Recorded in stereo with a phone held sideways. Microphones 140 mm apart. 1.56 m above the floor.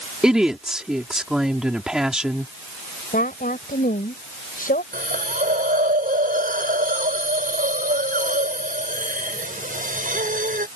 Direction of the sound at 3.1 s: 85° left.